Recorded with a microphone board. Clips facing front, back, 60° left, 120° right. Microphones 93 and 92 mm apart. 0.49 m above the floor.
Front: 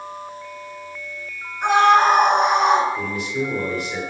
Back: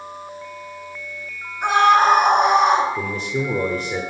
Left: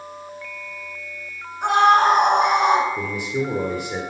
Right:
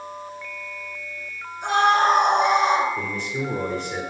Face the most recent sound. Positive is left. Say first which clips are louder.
# back 1 dB, left 3 dB
turn(degrees=135)